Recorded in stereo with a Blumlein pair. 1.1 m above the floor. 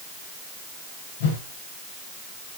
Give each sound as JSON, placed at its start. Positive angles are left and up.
{"t": 1.2, "sound": "a whoosh", "azimuth_deg": 55, "distance_m": 7.5}